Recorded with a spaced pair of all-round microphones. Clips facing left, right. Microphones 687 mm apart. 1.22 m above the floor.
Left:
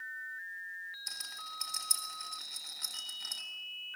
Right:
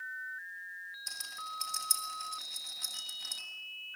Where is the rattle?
5° right (ahead or behind), 4 m.